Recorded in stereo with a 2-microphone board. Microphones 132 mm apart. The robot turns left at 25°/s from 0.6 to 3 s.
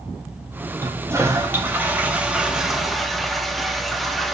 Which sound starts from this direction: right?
A toilet flushing, at 0.8 s.